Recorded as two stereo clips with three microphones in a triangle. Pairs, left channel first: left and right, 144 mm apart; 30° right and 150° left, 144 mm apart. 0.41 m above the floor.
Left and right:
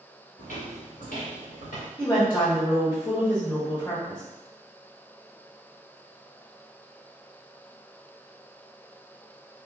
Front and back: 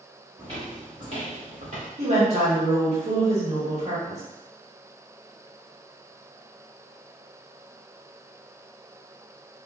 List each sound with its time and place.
0.4 s footsteps: 100° left, 1.9 m; by 1.9 s 105° left, 2.5 m
2.0 s a woman speaking: 135° left, 1.2 m